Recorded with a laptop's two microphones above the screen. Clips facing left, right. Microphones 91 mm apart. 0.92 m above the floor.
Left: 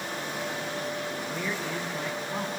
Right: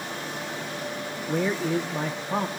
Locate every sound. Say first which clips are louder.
1.3 s a man speaking: right 12 dB; 60° right (ahead or behind), 1.3 m